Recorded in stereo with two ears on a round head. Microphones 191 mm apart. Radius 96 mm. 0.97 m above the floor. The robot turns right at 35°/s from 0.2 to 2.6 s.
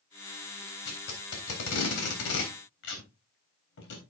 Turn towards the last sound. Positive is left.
turn(degrees=65)  # may be behind; listen again after turning